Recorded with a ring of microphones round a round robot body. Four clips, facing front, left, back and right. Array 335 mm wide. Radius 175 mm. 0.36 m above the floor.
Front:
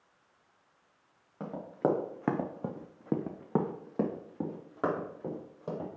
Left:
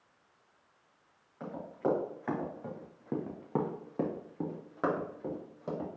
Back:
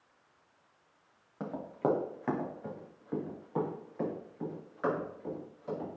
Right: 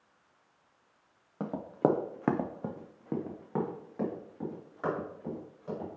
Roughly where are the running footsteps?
Right.